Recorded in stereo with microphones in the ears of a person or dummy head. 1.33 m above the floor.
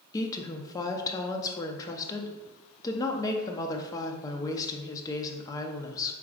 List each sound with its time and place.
0.1 s a woman speaking: 20° left (ahead or behind), 0.6 m